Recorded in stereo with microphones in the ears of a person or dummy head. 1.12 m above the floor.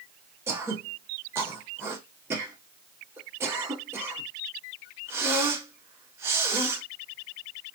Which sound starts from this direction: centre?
Throat clearing, at 0.5 s.